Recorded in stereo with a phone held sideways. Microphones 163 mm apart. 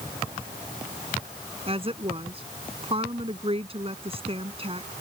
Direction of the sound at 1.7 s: 35° right (ahead or behind).